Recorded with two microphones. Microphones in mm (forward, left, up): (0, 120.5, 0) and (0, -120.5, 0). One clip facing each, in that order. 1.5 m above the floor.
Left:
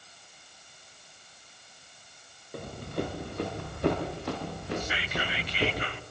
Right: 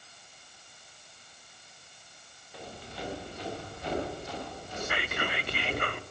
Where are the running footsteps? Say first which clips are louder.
Left 9 dB; 55° left (ahead or behind), 7 m; by 5.8 s 80° left, 8.5 m.